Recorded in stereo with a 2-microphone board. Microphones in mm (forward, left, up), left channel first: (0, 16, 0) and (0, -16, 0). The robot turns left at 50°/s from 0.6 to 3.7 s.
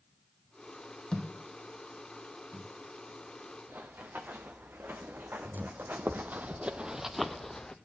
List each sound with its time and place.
1.1 s a thud: 25° left (ahead or behind), 1.9 m; by 2.7 s 50° right (ahead or behind), 1.9 m
3.7 s running footsteps: 85° right, 1.8 m; by 7.8 s 20° left (ahead or behind), 0.6 m